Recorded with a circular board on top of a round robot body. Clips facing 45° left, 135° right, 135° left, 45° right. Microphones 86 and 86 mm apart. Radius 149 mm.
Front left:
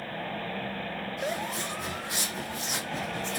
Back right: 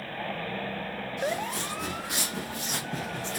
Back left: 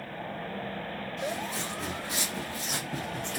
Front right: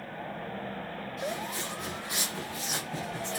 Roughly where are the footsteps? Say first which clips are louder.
Back right 3 dB, back left 1 dB; behind.